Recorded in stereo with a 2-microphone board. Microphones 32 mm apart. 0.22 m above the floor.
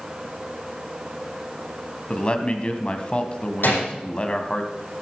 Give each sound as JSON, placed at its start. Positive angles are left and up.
{"t": 2.1, "sound": "a man speaking", "side_deg": 30, "distance_m": 1.2}
{"t": 3.6, "sound": "a gunshot", "side_deg": 85, "distance_m": 5.5}